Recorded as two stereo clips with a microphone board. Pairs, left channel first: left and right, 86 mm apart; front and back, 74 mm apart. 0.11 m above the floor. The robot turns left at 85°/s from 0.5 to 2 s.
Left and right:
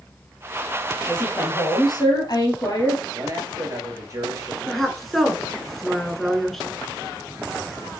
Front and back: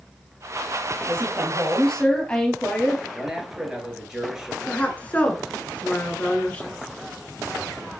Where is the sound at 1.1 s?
155° left, 2 m; by 3.0 s 75° left, 2 m.